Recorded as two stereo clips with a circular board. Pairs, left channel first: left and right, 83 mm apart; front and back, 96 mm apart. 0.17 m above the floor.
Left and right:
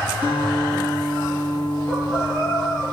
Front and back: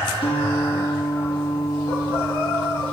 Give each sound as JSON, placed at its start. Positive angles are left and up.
{"t": 0.2, "sound": "a guitar", "azimuth_deg": -25, "distance_m": 4.0}